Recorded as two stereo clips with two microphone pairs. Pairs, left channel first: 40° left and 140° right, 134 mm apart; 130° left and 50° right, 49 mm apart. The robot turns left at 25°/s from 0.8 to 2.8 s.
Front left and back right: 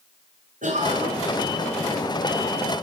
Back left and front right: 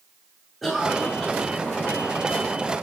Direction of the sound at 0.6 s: 150° right.